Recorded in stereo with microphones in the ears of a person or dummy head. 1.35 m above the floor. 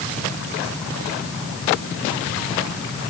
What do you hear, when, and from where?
Only background noise.